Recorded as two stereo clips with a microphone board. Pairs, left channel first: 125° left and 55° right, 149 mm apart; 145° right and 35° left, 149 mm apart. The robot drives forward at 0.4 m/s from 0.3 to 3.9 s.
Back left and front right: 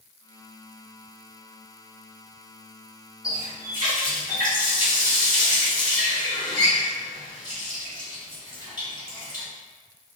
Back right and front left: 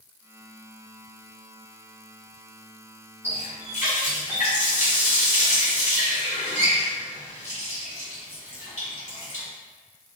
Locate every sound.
3.2 s a running tap: 175° right, 1.6 m